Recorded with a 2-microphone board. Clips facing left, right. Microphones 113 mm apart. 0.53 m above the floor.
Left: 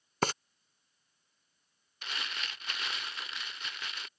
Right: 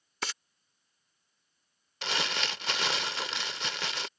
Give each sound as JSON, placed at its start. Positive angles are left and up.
{"t": 0.2, "sound": "frying", "side_deg": 45}
{"t": 2.0, "sound": "crumpling", "side_deg": -75}